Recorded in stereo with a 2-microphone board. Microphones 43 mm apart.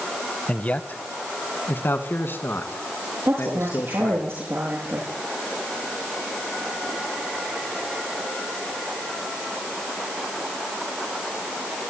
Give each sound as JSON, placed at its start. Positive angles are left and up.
{"t": 0.5, "sound": "a man speaking", "side_deg": 30, "distance_m": 1.2}
{"t": 3.2, "sound": "a woman speaking", "side_deg": -80, "distance_m": 7.5}